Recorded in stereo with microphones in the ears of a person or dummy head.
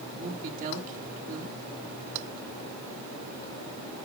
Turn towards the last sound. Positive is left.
turn(degrees=-40)  # may be behind; listen again after turning